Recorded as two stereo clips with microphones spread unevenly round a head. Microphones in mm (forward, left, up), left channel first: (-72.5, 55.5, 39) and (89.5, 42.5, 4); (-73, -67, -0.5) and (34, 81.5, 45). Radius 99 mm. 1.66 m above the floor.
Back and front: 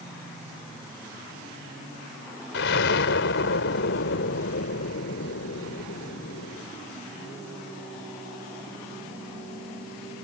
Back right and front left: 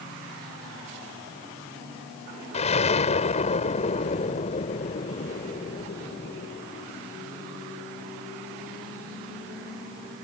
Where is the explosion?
175° left.